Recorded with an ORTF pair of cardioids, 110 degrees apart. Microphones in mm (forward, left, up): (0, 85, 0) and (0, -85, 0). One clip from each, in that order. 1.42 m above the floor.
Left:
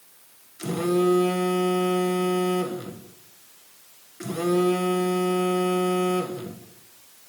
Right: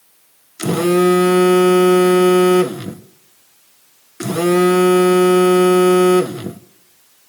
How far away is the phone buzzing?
About 1.5 m.